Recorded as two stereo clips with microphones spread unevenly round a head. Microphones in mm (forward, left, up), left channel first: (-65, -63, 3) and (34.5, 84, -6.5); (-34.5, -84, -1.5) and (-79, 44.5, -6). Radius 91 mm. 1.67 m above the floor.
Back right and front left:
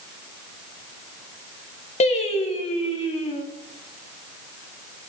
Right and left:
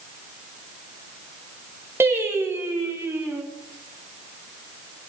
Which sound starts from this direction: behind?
Singing, at 2.0 s.